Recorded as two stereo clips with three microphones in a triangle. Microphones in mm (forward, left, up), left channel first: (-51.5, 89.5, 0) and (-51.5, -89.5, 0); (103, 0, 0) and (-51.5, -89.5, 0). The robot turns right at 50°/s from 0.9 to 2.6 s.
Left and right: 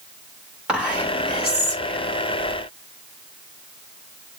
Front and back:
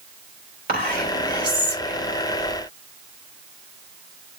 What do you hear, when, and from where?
0.7 s whispering: 175° right, 3 m; by 2.1 s 115° right, 3 m